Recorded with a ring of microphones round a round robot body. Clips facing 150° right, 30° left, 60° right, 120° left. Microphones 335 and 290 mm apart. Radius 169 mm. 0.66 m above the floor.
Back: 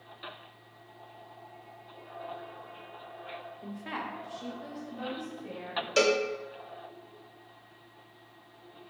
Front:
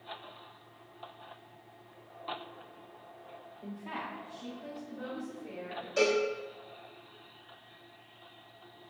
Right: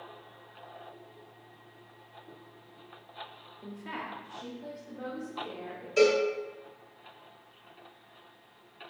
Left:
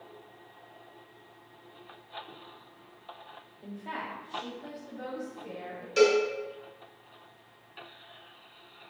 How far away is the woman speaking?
About 0.7 m.